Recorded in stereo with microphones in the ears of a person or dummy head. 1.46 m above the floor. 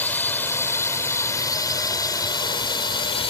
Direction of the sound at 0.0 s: 10° left (ahead or behind).